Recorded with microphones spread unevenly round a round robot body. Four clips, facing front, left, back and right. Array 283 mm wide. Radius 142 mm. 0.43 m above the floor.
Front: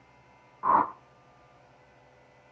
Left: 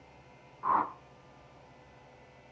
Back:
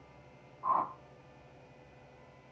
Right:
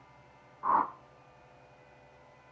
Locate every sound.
0.6 s a whoosh: 5° right, 0.6 m